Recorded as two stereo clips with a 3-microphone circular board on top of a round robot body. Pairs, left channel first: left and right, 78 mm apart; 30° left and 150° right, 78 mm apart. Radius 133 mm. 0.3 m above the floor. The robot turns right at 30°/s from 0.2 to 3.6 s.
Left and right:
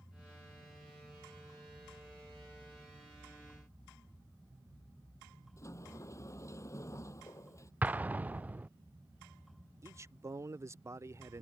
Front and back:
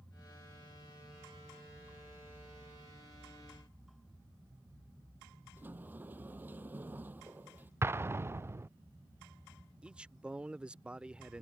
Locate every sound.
5.6 s a sliding door: 140° left
7.8 s an explosion: 140° right
9.8 s a man speaking: 80° right